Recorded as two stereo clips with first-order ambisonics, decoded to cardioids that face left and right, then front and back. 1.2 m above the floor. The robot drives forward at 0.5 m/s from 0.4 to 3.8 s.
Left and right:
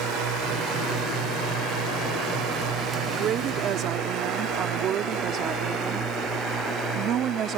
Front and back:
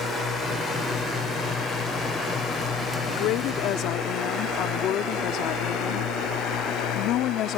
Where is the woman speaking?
35° right; by 7.6 s 40° right.